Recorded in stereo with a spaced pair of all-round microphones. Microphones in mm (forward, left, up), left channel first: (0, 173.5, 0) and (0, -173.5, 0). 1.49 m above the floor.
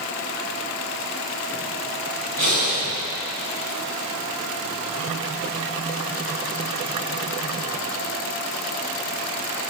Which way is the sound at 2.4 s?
60° right (ahead or behind).